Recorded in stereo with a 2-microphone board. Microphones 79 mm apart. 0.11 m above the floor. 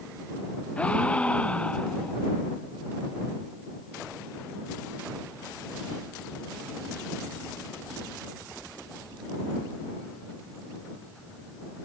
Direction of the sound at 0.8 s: 15° left (ahead or behind).